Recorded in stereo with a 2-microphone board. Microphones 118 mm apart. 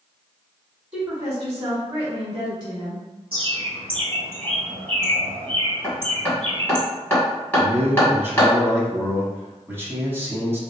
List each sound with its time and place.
0.9 s a woman speaking: 15° right (ahead or behind), 1.3 m; by 3.0 s 45° right (ahead or behind), 1.7 m
3.3 s a bird: 50° right (ahead or behind), 1.0 m
5.8 s hammering: 15° left (ahead or behind), 1.7 m
7.6 s a man speaking: 20° right (ahead or behind), 1.0 m